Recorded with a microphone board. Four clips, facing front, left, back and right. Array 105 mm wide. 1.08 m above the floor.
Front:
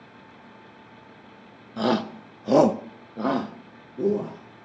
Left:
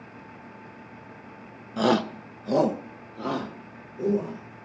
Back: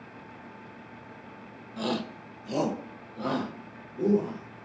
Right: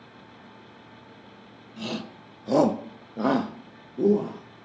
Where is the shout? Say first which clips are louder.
Left 12 dB, front 7 dB; 65° left, 1.0 m; by 4.4 s 70° right, 2.5 m.